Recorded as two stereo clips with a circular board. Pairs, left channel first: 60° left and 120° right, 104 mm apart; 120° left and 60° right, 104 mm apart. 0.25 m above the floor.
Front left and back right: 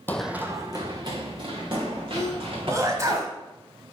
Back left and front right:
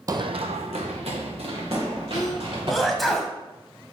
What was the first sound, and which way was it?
Running footsteps, 10° right.